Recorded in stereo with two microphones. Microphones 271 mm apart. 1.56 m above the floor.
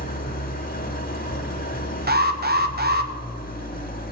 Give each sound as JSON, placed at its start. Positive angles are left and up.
{"t": 0.0, "sound": "an engine running", "side_deg": 35, "distance_m": 1.3}
{"t": 2.1, "sound": "an alarm", "side_deg": -35, "distance_m": 0.9}